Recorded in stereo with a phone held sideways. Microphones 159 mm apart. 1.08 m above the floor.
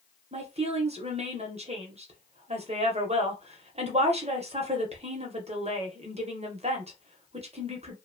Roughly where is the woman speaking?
Right.